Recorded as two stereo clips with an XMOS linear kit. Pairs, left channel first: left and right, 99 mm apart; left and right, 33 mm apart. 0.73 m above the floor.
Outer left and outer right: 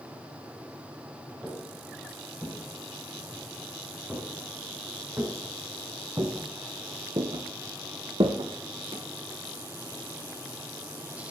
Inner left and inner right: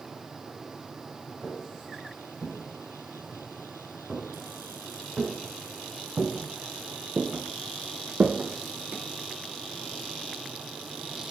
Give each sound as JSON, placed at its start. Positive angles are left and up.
{"t": 1.4, "sound": "footsteps", "side_deg": -5, "distance_m": 8.5}